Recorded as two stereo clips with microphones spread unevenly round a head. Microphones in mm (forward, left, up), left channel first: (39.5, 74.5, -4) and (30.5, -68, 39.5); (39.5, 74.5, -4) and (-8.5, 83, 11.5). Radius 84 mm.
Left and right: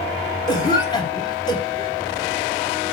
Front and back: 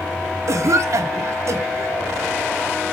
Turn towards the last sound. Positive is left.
turn(degrees=155)